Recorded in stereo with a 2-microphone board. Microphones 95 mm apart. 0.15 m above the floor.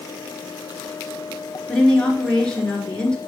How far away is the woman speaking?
About 2 m.